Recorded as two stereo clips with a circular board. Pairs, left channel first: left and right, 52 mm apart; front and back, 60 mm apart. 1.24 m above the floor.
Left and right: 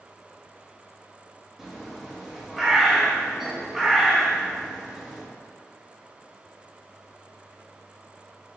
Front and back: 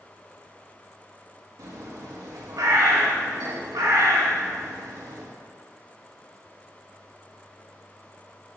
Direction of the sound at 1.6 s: 175° right.